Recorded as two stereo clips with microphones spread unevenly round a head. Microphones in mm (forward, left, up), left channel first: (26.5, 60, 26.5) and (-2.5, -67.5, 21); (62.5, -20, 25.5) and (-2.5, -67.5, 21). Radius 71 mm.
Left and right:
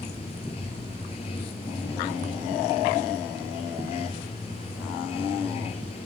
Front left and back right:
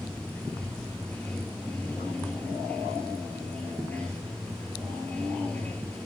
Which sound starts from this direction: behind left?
Running water, at 0.0 s.